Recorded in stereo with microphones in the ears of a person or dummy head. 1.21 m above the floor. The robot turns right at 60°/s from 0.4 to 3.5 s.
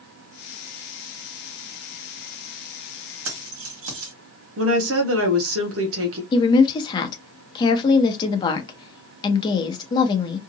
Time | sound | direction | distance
3.2 | keys jangling | 75° right (ahead or behind) | 1.4 m
4.6 | a woman speaking | 65° right (ahead or behind) | 1.0 m
6.3 | a woman speaking | 25° left (ahead or behind) | 0.8 m